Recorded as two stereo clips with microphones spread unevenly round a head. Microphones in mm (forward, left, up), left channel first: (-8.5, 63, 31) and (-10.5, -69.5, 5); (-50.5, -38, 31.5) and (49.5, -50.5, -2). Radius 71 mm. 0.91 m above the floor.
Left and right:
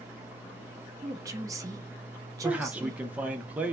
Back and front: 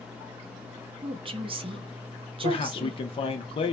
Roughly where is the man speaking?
Behind right.